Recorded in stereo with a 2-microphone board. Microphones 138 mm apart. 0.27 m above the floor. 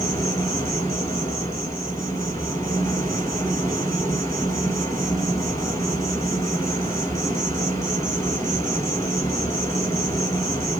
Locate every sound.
0.0 s an insect: 25° left (ahead or behind), 1.2 m